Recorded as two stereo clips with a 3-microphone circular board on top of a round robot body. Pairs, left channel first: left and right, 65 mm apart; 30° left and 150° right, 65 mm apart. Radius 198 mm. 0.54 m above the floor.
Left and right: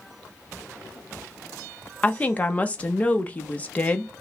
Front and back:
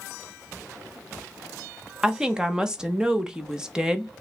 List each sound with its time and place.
2.0 s a woman speaking: 140° left, 1.0 m